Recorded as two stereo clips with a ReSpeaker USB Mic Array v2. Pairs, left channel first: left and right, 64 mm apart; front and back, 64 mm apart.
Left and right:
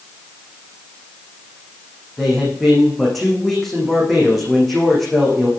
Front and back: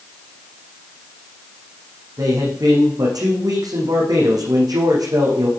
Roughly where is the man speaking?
Behind.